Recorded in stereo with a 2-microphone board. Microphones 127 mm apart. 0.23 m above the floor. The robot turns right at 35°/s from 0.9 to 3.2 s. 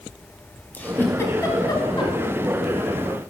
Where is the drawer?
I don't hear a drawer.